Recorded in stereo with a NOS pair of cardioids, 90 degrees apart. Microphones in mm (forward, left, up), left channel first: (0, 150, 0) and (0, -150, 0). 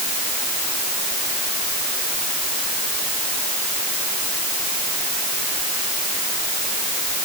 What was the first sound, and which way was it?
Only background noise.